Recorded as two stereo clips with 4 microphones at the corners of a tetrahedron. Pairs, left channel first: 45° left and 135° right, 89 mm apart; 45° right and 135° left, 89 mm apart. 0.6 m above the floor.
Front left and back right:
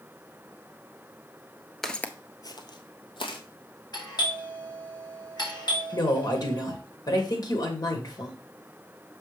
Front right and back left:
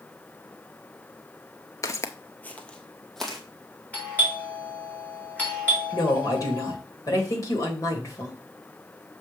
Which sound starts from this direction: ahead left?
A doorbell, at 3.9 s.